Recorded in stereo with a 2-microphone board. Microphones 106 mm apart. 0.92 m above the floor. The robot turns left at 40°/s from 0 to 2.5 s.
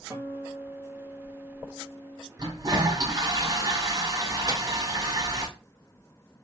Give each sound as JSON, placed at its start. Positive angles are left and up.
{"t": 0.1, "sound": "a guitar", "azimuth_deg": -150, "distance_m": 1.4}
{"t": 2.4, "sound": "a toilet flushing", "side_deg": -35, "distance_m": 1.5}
{"t": 4.5, "sound": "a microwave", "side_deg": -35, "distance_m": 0.7}